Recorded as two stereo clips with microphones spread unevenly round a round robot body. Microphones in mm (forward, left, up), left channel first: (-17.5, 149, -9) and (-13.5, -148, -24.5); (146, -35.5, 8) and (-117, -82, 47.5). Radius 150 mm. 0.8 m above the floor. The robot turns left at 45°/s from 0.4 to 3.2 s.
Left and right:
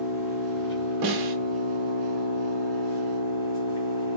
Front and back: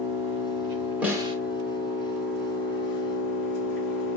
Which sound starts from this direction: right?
A snare drum, at 1.0 s.